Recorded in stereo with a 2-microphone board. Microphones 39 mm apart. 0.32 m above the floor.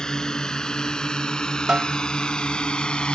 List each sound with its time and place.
0.0 s a drone: 20° left (ahead or behind); by 3.1 s 25° left (ahead or behind)
1.7 s a snare drum: 25° right (ahead or behind)